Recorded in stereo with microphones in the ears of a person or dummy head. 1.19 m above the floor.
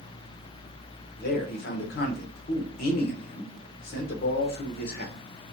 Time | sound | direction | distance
1.2 | a man speaking | 50° left (ahead or behind) | 0.7 m